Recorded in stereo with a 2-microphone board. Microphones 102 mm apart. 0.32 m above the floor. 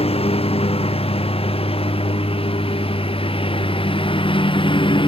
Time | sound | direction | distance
0.0 | a lawn mower | 75° left (ahead or behind) | ?